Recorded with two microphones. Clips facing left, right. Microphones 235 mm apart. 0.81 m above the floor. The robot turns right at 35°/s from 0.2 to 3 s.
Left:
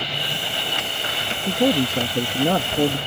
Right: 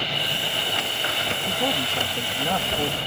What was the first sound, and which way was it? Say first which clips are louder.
A man speaking: left 10 dB; 65° left.